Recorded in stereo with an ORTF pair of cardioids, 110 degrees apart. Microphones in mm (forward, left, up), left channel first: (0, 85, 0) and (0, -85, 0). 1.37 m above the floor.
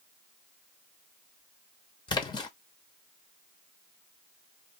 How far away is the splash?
About 1.0 m.